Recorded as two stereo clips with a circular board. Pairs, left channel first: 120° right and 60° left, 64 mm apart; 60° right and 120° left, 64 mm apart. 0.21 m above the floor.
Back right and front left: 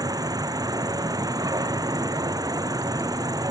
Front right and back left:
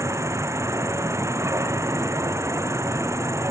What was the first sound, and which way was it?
An insect, 75° left.